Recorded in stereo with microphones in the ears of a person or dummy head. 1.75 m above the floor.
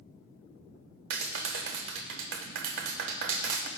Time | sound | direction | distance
1.1 | a clap | 60° right (ahead or behind) | 0.8 m